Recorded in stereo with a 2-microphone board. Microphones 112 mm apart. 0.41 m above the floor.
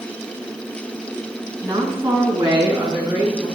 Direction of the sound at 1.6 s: 30° right (ahead or behind).